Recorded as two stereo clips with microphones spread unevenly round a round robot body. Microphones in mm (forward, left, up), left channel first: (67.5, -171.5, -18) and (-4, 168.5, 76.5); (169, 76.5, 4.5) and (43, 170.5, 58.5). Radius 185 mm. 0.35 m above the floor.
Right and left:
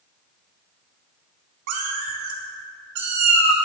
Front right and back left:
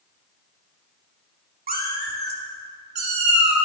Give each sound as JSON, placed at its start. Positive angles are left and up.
{"t": 1.7, "sound": "a cat meowing", "azimuth_deg": 110, "distance_m": 1.1}